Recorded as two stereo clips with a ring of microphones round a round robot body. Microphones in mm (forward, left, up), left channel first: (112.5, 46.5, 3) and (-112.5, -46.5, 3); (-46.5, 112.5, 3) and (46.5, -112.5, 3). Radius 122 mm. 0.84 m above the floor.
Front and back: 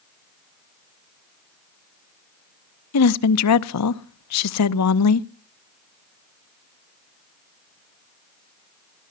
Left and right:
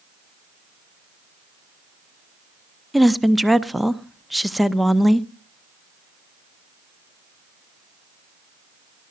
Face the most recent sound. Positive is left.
turn(degrees=20)